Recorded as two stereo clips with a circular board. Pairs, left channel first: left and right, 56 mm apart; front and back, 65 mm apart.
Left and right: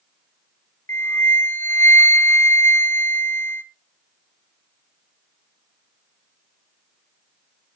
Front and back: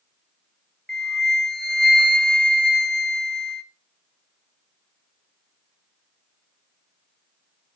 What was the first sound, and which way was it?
A flute, 75° left.